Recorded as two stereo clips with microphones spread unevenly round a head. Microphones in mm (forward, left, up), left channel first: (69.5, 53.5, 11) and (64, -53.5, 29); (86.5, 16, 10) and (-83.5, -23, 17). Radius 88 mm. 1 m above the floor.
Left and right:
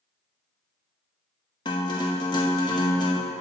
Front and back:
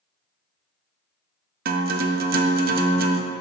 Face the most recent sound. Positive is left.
turn(degrees=160)